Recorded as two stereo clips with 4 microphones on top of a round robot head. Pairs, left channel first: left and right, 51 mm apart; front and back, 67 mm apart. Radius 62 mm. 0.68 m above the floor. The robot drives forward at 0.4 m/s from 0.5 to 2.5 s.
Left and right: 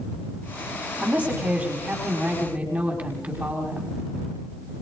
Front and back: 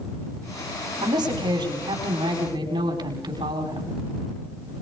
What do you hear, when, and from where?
1.0 s a woman speaking: 155° right, 4.5 m; by 4.0 s 160° right, 5 m